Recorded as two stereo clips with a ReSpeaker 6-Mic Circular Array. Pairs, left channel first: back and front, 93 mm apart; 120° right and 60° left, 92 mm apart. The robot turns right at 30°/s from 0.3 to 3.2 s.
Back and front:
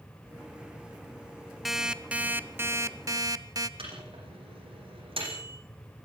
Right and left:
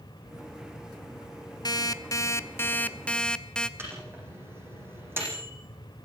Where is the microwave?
5° right, 8.5 m.